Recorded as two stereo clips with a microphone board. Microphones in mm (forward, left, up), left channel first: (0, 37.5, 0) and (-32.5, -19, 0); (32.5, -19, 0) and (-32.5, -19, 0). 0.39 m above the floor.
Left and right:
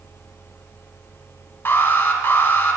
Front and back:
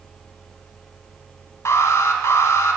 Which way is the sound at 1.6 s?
15° left.